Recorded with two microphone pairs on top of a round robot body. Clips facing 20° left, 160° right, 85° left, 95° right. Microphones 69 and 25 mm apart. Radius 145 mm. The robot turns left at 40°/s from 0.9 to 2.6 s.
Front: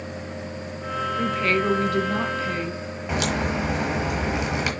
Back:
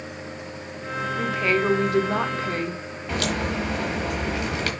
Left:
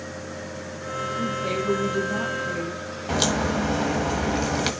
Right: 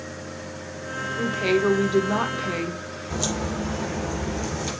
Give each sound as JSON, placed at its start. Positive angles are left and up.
{"t": 1.2, "sound": "a woman speaking", "azimuth_deg": -65, "distance_m": 1.6}
{"t": 3.1, "sound": "a crack", "azimuth_deg": 95, "distance_m": 1.3}